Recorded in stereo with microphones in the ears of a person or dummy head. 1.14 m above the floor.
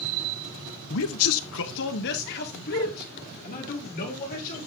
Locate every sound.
0.9 s a man speaking: 70° left (ahead or behind), 0.7 m; by 4.6 s 45° left (ahead or behind), 3.5 m